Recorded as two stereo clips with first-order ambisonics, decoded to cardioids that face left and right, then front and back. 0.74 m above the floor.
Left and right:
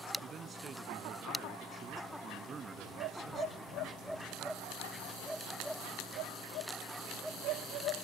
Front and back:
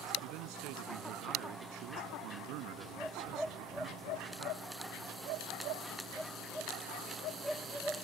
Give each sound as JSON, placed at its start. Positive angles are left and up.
{"t": 0.2, "sound": "a man speaking", "azimuth_deg": -160}